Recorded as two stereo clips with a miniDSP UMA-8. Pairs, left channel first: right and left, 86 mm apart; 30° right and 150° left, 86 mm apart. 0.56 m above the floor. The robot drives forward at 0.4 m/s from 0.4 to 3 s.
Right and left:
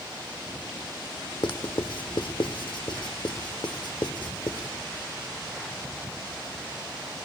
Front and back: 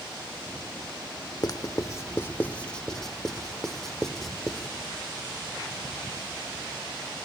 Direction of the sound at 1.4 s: 70° right.